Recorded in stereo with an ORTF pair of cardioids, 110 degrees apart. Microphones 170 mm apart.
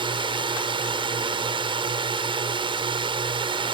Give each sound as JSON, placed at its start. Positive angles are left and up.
{"t": 0.0, "sound": "a drone", "azimuth_deg": -30}